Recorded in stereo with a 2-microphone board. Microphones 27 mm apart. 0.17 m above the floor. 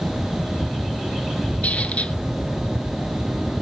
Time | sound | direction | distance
1.6 | a squeak | 60° left (ahead or behind) | 0.6 m